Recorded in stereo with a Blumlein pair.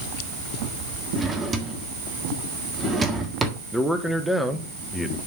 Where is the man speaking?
Straight ahead, 1.1 m.